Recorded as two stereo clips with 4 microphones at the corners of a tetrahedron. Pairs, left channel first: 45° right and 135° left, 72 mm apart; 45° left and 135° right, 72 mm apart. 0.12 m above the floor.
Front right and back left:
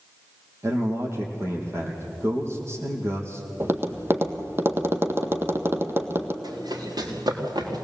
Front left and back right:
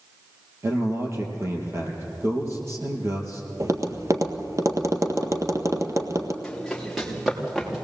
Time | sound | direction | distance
0.6 | a man speaking | straight behind | 4 m
3.6 | tapping | 175° right | 1.6 m
6.4 | running footsteps | 130° left | 4 m